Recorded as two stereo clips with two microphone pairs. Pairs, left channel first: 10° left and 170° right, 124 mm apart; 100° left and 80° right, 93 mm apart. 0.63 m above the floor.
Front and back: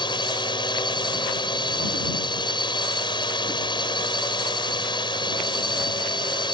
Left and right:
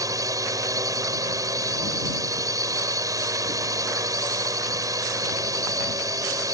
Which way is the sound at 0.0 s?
35° right.